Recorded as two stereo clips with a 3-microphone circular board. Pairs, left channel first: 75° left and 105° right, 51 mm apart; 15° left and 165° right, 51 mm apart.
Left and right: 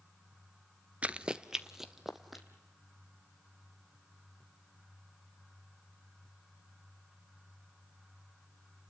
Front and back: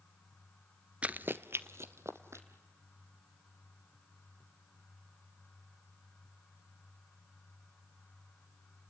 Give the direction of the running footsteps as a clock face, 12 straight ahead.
5 o'clock.